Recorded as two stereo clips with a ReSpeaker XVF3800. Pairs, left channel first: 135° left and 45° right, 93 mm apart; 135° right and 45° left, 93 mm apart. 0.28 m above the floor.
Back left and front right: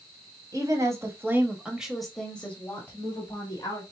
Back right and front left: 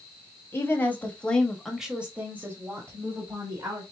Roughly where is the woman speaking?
Right.